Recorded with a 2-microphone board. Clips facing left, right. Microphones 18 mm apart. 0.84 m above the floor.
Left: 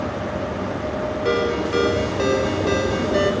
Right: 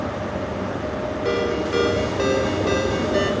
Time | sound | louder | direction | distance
1.2 | a ringtone | left 1 dB | 10° left (ahead or behind) | 1.9 m